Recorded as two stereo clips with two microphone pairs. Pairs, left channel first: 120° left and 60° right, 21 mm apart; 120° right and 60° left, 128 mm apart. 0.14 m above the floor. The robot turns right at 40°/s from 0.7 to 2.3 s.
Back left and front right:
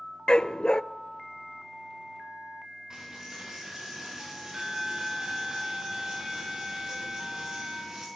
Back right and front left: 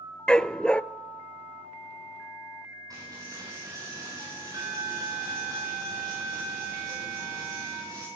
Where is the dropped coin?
Straight ahead, 8.5 m.